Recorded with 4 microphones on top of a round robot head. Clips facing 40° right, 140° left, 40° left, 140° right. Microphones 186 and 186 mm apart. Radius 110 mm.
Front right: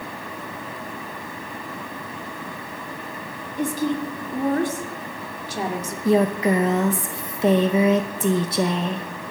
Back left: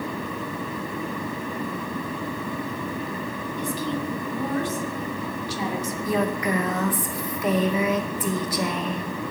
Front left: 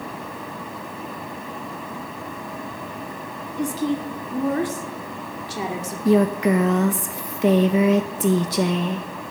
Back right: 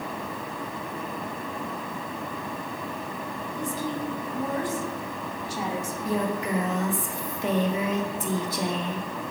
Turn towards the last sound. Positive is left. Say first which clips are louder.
# front right 7 dB, front left 11 dB
turn(degrees=25)